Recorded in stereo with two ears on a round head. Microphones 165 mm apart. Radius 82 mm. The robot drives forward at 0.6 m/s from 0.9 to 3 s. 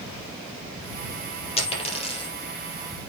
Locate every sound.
1.6 s a dropped coin: 35° left (ahead or behind), 3 m; by 2.3 s 30° left (ahead or behind), 3.5 m